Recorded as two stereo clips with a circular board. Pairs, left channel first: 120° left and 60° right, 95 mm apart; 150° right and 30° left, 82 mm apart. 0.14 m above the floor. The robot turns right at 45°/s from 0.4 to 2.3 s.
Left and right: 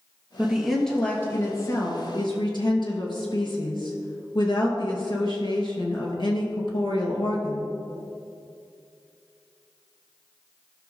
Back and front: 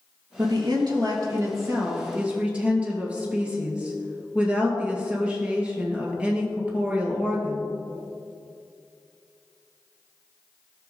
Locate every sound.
0.4 s a woman speaking: 15° left, 2 m; by 7.7 s 100° left, 2 m